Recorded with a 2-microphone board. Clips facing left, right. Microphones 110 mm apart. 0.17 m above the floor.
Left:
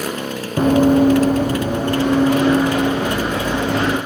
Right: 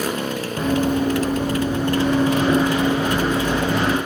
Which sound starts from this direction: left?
Running footsteps, at 0.6 s.